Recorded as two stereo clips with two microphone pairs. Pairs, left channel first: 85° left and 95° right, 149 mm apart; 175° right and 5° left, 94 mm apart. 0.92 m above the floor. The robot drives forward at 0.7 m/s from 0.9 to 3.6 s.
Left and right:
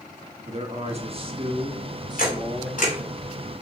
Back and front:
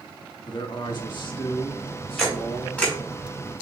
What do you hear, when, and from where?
0.5 s a man speaking: 135° right, 1.3 m; by 2.8 s 160° right, 2.5 m
2.2 s a camera shutter: 105° left, 3 m; by 3.0 s 115° left, 3.5 m